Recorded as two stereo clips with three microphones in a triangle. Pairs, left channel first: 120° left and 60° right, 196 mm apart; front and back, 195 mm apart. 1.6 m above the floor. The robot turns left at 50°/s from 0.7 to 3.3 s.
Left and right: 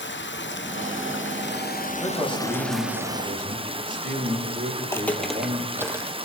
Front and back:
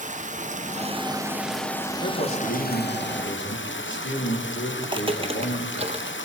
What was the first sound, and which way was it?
Running water, 135° left.